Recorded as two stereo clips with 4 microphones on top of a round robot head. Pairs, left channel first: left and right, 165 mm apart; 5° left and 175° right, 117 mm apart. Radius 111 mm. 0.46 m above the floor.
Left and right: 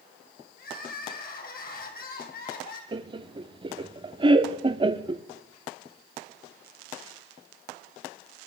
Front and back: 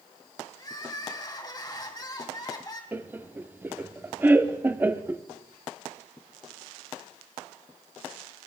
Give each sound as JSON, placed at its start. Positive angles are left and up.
{"t": 0.6, "sound": "crying", "azimuth_deg": 65, "distance_m": 2.5}
{"t": 2.9, "sound": "laughter", "azimuth_deg": -115, "distance_m": 0.8}